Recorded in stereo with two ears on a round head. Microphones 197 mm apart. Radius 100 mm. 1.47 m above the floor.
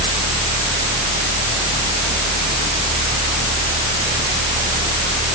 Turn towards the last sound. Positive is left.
No sound to turn to.